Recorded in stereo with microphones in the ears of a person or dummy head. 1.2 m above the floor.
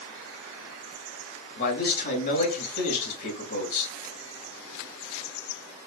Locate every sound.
1.6 s a man speaking: 50° left (ahead or behind), 2 m